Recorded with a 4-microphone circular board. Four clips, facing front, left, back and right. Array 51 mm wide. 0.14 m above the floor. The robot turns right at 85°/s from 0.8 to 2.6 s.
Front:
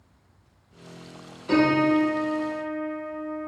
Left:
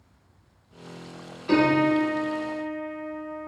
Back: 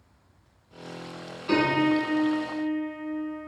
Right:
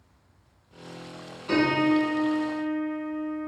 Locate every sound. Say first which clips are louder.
1.5 s a piano: left 2 dB, front 3 dB; 160° left, 1.2 m; by 3.5 s 105° right, 1.2 m